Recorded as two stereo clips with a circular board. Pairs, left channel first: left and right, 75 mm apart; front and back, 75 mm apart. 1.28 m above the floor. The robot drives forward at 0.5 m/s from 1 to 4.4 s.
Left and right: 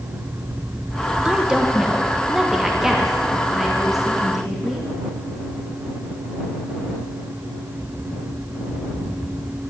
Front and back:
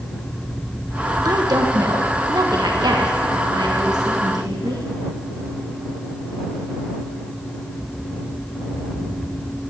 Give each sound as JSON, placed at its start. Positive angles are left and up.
{"t": 1.2, "sound": "a woman speaking", "azimuth_deg": -165, "distance_m": 1.1}